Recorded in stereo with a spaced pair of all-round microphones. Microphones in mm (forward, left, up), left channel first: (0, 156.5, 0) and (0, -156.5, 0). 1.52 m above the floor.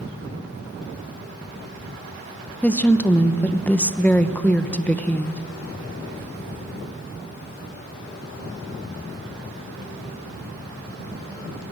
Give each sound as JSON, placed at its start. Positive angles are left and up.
{"t": 2.6, "sound": "a woman speaking", "side_deg": 5, "distance_m": 1.0}